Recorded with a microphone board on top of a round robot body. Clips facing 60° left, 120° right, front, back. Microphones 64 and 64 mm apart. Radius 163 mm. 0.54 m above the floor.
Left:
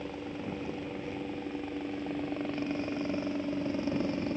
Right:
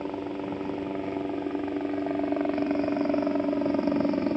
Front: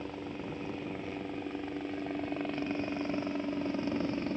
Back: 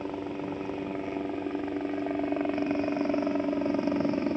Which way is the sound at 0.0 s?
125° right.